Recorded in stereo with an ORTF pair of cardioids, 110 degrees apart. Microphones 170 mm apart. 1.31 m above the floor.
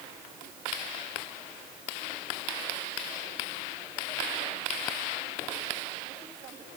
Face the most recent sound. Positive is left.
No sound to turn to.